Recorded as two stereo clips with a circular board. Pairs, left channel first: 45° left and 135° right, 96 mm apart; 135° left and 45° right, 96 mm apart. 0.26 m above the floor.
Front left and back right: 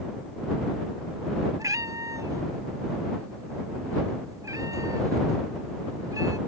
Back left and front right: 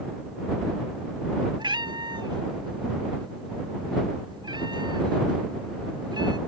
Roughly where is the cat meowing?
Right.